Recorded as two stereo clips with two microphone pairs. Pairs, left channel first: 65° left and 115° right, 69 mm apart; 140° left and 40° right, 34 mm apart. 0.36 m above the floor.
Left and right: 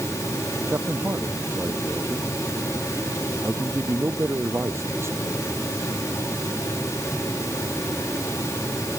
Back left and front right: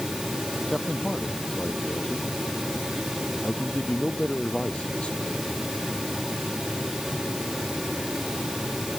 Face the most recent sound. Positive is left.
turn(degrees=-165)